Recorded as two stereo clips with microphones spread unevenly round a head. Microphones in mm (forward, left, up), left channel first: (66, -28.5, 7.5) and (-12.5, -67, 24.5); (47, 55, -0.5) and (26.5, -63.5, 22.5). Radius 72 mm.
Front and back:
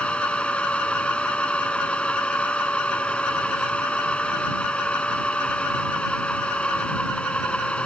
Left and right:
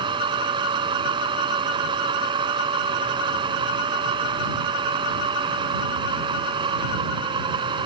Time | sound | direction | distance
0.0 | a machine running | 55° right | ?